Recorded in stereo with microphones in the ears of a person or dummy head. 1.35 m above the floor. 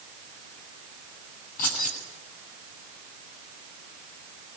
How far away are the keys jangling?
About 8 m.